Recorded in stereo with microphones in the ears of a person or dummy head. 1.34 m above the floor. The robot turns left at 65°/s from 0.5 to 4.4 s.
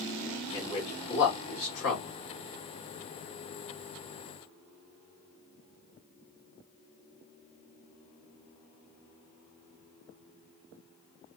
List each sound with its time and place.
0.5 s a man speaking: 20° left (ahead or behind), 2 m; by 2.1 s 60° left (ahead or behind), 2 m